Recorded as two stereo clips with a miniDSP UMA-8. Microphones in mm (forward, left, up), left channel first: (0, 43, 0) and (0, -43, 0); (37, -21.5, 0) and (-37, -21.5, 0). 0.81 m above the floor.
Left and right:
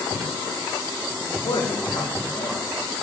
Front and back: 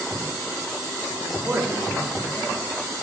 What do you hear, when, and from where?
1.2 s a man speaking: 105° left, 2.5 m